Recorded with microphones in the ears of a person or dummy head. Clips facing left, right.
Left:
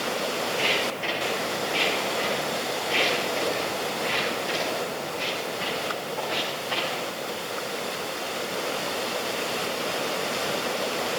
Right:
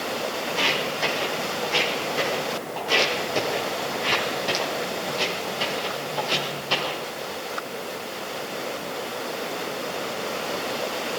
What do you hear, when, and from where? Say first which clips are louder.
0.5 s footsteps: even; 65° right (ahead or behind), 5.5 m; by 7.0 s 55° right (ahead or behind), 5 m